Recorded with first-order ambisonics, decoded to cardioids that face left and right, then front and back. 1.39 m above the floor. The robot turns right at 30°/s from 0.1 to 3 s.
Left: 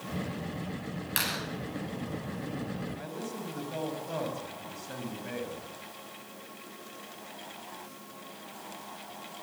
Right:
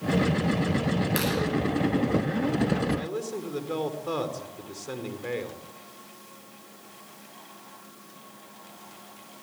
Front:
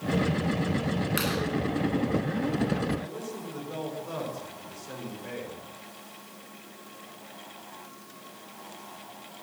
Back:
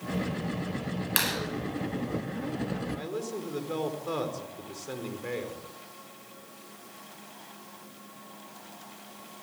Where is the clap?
175° left, 10 m; by 1.4 s straight behind, 10 m.